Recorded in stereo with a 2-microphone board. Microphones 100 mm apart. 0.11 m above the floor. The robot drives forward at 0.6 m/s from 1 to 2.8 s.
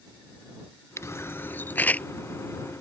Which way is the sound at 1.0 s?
30° left (ahead or behind).